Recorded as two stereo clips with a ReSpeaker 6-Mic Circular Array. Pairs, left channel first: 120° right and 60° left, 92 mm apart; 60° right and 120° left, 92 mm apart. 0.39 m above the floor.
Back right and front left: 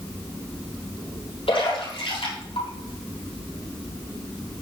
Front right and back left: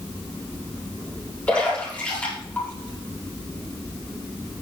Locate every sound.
1.5 s a splash: 135° right, 5.5 m